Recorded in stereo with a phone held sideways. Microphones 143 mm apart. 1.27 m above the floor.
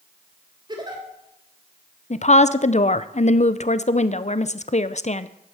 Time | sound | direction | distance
0.7 | a giggle | 30° right (ahead or behind) | 3 m
2.1 | a woman speaking | 50° left (ahead or behind) | 0.6 m